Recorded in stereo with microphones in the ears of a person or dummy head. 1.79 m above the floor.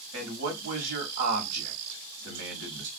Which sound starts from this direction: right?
A man speaking, at 0.1 s.